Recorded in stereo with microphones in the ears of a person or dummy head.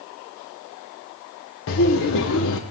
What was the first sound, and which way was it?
Laughter, 70° left (ahead or behind).